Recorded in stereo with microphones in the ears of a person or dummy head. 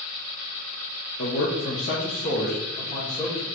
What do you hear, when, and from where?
1.2 s a man speaking: 60° left (ahead or behind), 0.7 m; by 3.5 s 15° left (ahead or behind), 1.4 m